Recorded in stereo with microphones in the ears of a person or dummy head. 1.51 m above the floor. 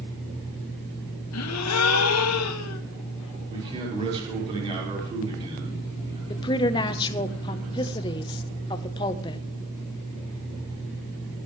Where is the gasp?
85° left, 0.9 m.